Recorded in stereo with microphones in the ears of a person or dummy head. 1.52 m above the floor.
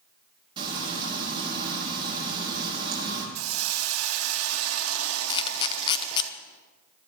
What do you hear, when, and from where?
0.6 s frying: 30° right (ahead or behind), 4 m
3.4 s a hiss: 85° right, 1.1 m
5.3 s a camera shutter: 25° left (ahead or behind), 0.6 m